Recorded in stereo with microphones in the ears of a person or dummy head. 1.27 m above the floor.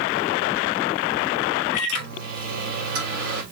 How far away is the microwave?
About 3 m.